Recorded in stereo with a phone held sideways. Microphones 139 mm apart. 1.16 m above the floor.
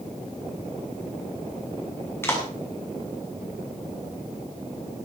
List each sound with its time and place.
2.2 s a clap: 20° left (ahead or behind), 6.5 m